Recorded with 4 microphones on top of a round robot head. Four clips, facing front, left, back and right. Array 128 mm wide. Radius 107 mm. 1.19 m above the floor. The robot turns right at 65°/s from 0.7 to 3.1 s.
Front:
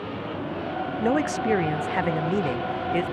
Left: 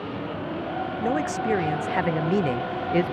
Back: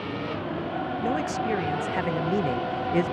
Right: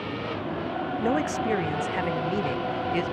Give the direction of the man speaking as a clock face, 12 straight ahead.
12 o'clock.